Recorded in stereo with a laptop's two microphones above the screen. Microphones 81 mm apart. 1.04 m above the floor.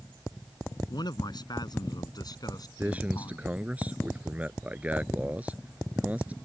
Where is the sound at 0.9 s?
60° left (ahead or behind); by 3.5 s 50° left (ahead or behind).